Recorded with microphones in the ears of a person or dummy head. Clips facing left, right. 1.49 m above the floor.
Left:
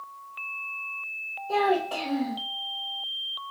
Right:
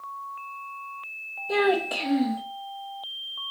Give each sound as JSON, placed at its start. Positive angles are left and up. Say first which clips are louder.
{"t": 1.5, "sound": "a child speaking", "louder": "right 1 dB", "side_deg": -25, "distance_m": 0.9}